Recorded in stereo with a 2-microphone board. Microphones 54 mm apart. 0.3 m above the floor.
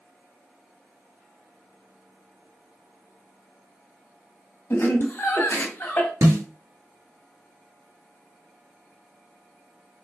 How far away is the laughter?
About 1.6 m.